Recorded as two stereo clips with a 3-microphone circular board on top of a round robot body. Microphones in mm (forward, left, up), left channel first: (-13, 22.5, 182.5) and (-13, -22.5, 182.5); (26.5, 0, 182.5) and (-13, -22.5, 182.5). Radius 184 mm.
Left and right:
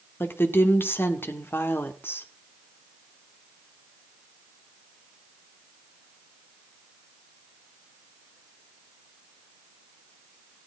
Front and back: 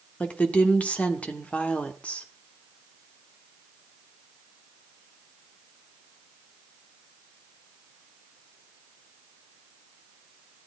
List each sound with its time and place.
0.2 s a woman speaking: 85° left, 1.6 m